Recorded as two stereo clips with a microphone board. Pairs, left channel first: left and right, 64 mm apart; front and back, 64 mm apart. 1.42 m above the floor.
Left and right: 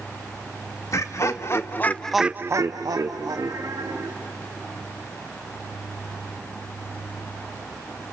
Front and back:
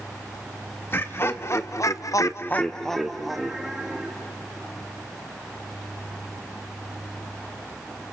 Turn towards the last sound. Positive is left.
turn(degrees=-100)